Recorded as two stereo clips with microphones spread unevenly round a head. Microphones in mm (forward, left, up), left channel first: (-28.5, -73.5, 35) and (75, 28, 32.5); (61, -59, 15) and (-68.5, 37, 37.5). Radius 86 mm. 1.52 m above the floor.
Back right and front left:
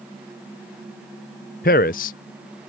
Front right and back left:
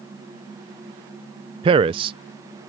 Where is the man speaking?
170° right.